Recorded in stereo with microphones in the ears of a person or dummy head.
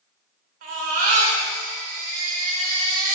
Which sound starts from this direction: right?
A baby crying, at 0.6 s.